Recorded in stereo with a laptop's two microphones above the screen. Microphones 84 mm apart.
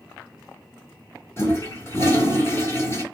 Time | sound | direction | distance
1.4 | a toilet flushing | 30° left (ahead or behind) | 2.0 m